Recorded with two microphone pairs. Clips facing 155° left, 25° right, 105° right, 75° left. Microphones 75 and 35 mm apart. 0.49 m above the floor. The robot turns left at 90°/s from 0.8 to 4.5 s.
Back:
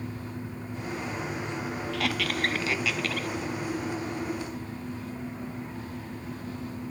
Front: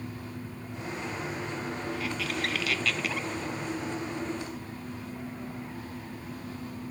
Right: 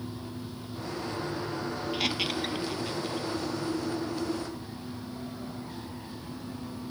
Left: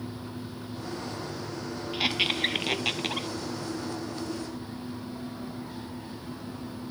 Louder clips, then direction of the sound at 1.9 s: Back 3 dB, left 4 dB; 160° left.